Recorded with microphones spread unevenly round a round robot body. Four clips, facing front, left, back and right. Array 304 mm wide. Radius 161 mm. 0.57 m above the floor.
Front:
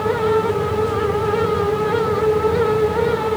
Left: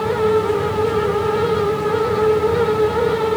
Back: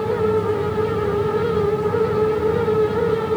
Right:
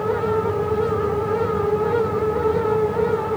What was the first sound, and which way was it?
Only background noise.